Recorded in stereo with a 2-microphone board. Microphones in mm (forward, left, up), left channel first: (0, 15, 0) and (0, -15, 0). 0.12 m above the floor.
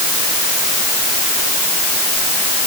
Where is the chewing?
No chewing in this recording.